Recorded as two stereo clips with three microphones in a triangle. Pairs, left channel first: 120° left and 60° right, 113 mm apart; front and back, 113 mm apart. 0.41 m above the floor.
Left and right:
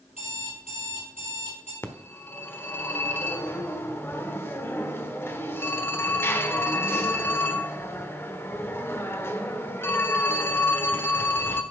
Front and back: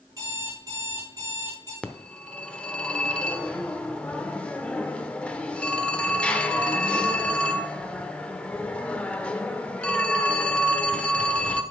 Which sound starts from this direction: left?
A phone ringing, at 1.8 s.